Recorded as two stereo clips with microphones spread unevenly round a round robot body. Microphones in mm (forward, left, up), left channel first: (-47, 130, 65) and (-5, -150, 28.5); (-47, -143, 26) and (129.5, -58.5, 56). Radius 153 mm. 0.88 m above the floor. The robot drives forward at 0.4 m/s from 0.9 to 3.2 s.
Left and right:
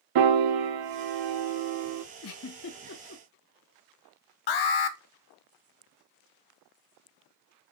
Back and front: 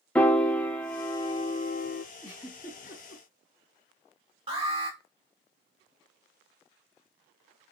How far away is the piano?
About 0.7 m.